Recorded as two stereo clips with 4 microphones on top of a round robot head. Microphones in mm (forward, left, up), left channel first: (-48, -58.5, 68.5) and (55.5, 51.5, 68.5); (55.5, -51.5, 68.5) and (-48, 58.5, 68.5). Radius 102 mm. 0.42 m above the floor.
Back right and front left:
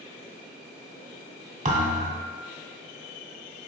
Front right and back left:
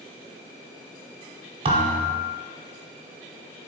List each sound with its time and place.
1.6 s a thud: 80° left, 1.0 m